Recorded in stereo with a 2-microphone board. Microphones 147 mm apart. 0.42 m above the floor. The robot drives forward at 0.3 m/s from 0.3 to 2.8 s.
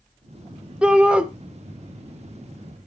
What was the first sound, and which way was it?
A shout, 5° right (ahead or behind).